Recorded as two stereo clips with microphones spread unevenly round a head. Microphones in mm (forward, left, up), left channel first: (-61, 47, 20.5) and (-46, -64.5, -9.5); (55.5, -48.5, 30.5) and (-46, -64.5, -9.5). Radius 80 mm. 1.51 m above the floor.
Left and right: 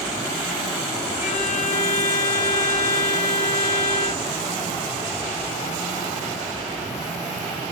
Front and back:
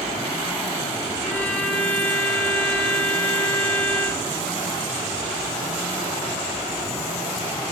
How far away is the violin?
About 4.5 m.